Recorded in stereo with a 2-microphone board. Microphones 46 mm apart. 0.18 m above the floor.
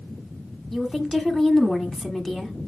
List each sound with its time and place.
0.7 s a woman speaking: 10° left (ahead or behind), 1.3 m